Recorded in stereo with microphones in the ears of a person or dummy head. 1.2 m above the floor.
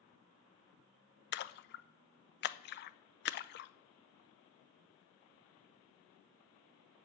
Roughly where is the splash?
Left.